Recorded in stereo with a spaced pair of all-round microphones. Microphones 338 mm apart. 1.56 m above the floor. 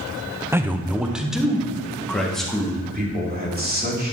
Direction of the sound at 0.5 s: 5° right (ahead or behind).